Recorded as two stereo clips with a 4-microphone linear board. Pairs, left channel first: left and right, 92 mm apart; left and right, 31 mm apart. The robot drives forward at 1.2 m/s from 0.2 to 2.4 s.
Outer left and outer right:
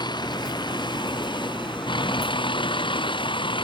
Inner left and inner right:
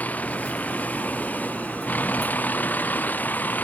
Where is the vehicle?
55° left (ahead or behind); by 3.6 s 65° left (ahead or behind).